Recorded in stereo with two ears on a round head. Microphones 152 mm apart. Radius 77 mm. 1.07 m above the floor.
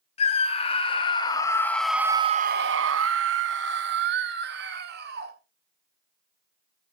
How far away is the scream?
About 2.0 m.